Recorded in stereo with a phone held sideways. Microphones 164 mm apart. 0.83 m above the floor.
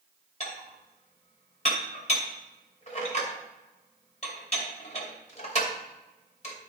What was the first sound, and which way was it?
Dishes clattering, 45° left (ahead or behind).